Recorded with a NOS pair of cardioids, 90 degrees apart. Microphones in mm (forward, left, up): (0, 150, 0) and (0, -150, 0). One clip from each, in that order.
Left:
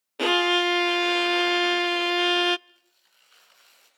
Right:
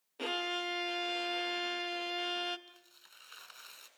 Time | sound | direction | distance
0.2 | a violin | 60° left | 0.5 m
2.7 | tearing paper | 55° right | 7 m